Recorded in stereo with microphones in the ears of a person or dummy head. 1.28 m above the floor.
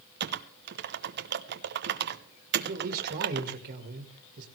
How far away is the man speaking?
About 1.6 m.